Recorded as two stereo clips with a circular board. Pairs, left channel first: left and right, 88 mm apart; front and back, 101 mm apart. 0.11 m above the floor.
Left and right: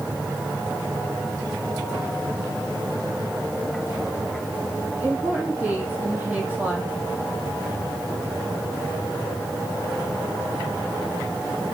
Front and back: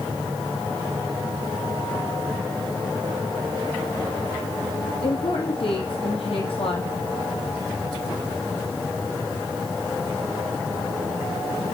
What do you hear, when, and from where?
5.0 s a woman speaking: 20° right, 3.5 m